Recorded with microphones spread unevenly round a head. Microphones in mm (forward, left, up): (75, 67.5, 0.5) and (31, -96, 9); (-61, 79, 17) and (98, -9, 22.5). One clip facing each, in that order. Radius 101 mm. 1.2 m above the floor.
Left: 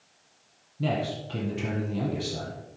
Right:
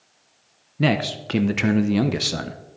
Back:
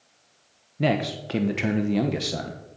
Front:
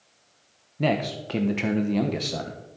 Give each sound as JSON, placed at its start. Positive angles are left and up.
{"t": 0.8, "sound": "a man speaking", "azimuth_deg": -125, "distance_m": 0.8}